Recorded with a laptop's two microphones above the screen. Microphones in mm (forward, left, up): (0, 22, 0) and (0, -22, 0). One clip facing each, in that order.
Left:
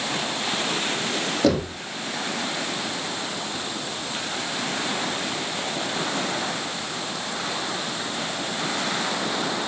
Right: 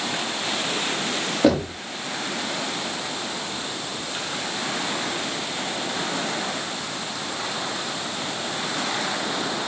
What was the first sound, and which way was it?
Knocking, 15° right (ahead or behind).